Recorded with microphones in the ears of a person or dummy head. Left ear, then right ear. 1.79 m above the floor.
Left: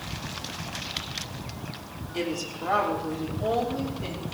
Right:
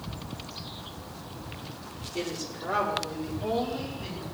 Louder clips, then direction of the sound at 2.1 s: Left 4 dB; 80° left.